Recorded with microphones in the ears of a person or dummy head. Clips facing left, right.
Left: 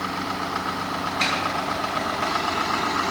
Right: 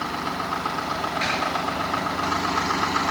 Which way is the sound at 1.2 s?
60° left (ahead or behind).